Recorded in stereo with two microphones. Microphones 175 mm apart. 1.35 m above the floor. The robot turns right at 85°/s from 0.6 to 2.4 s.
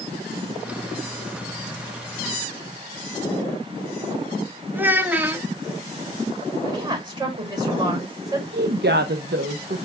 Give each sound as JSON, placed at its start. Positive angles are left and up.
{"t": 4.7, "sound": "a child speaking", "side_deg": -10, "distance_m": 0.8}
{"t": 6.7, "sound": "a woman speaking", "side_deg": -25, "distance_m": 5.5}
{"t": 8.5, "sound": "a woman speaking", "side_deg": -70, "distance_m": 0.7}